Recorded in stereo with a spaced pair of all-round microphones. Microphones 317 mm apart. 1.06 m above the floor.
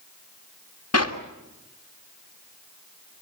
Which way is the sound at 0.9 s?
50° left (ahead or behind).